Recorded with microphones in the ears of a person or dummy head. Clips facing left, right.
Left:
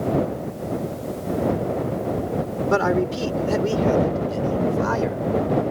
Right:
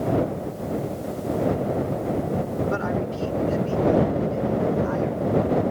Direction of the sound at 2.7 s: 75° left (ahead or behind).